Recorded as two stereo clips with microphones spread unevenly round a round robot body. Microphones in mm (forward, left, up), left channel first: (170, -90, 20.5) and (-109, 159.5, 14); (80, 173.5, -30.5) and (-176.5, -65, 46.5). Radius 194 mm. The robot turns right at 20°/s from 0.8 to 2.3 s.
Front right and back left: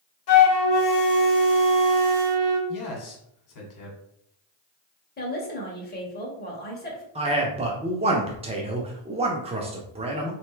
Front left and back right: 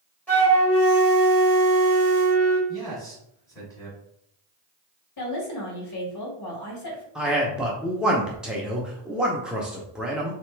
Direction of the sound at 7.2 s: 100° left.